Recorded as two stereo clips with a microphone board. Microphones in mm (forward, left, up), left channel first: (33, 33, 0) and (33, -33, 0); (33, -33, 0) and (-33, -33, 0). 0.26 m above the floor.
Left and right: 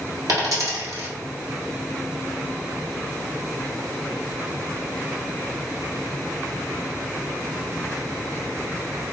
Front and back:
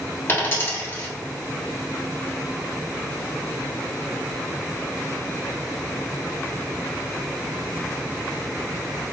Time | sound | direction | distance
0.3 | a dropped coin | 55° right | 1.4 m